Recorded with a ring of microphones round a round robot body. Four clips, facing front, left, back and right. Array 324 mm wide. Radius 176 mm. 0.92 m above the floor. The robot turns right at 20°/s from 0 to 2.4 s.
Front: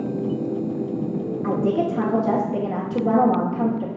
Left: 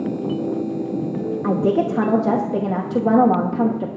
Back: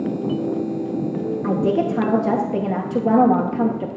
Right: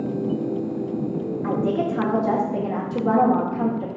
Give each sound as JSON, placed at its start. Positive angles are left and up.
{"t": 1.4, "sound": "a woman speaking", "azimuth_deg": 100, "distance_m": 0.8}